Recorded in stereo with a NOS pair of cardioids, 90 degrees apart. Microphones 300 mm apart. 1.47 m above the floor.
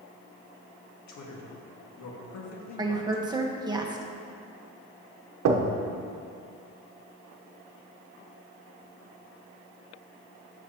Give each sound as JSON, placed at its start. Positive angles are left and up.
{"t": 1.1, "sound": "a man speaking", "azimuth_deg": 65, "distance_m": 1.7}
{"t": 2.8, "sound": "a woman speaking", "azimuth_deg": -15, "distance_m": 1.2}
{"t": 5.5, "sound": "knocking", "azimuth_deg": -65, "distance_m": 1.0}